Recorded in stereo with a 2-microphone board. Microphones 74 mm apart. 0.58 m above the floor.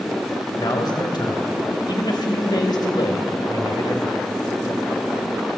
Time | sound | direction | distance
0.6 | a man speaking | 70° left (ahead or behind) | 3.5 m